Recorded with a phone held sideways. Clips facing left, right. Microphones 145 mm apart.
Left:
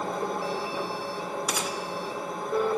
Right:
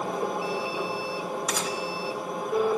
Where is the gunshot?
5° left (ahead or behind), 0.6 m.